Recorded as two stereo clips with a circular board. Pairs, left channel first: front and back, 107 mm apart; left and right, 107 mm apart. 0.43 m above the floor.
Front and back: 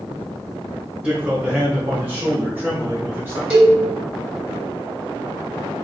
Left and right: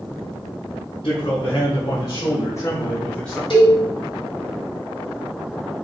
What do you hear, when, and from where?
1.0 s a man speaking: 105° left, 2.5 m; by 3.4 s 165° left, 1.3 m
3.5 s a cowbell: 105° left, 2.5 m